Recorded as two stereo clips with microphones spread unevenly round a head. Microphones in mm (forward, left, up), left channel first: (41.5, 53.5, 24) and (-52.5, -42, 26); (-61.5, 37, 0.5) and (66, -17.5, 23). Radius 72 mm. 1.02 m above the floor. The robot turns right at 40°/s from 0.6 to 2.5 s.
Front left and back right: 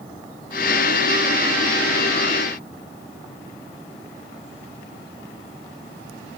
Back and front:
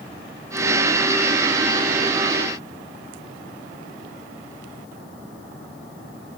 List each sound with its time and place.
Only background noise.